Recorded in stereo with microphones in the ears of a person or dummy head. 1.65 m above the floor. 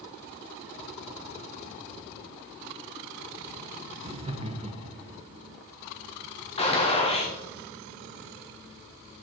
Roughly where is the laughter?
Right.